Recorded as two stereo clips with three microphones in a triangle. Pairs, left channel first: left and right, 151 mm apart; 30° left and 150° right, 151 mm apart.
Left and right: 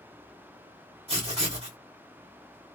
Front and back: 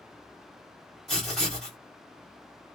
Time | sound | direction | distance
1.1 | writing | 60° right | 1.8 m